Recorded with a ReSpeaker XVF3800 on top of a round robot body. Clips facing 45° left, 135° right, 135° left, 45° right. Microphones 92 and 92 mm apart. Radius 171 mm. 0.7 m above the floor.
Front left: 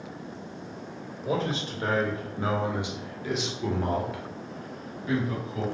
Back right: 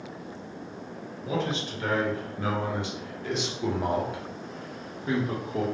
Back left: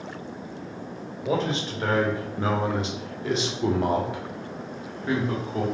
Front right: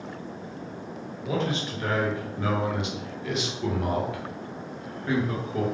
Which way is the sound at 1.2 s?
85° left.